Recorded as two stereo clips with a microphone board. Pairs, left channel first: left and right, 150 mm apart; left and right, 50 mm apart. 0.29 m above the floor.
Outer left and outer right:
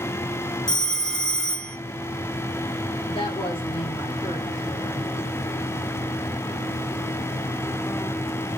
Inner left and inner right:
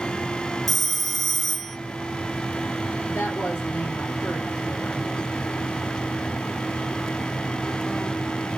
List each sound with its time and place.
0.7 s a phone ringing: 5° left (ahead or behind), 1.2 m
3.1 s a woman speaking: 35° left (ahead or behind), 8.5 m